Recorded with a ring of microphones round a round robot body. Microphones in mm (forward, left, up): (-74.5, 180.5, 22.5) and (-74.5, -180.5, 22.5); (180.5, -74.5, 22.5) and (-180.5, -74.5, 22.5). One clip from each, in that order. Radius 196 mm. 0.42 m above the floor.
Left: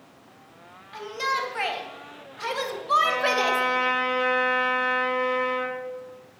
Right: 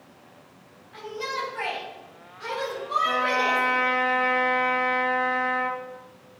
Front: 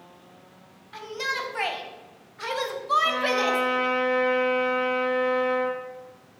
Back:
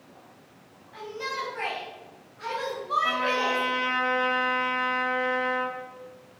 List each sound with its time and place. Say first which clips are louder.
0.9 s a shout: left 4 dB, front 3 dB; 45° left, 3 m; by 3.6 s 60° left, 2 m
3.0 s a trumpet: even, front 2 dB; 110° left, 3.5 m